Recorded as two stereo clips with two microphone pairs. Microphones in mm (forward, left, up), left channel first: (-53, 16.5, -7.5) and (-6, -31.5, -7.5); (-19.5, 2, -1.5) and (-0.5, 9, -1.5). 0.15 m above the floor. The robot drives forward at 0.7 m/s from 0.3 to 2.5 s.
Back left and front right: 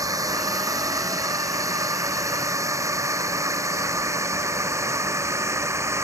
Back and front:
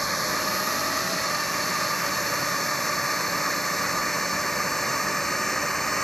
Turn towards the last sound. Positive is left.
turn(degrees=-90)